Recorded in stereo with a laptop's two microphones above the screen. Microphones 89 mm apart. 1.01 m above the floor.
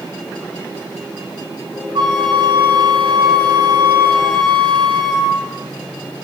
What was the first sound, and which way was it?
A flute, 60° right (ahead or behind).